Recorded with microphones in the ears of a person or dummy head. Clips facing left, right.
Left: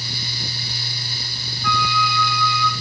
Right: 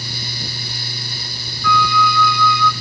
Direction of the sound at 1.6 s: 25° left (ahead or behind).